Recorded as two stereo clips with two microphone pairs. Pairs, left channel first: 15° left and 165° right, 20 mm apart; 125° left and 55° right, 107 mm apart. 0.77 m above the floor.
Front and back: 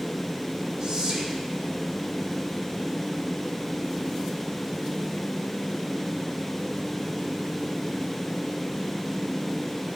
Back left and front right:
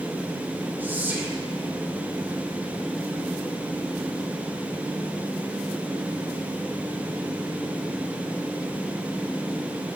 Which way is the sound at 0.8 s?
125° right.